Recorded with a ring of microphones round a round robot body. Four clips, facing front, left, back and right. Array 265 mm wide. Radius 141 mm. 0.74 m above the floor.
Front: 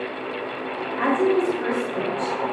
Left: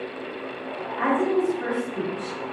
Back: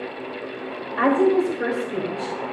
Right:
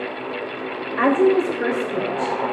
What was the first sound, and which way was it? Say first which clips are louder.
A woman speaking: right 6 dB, back 2 dB; 120° right.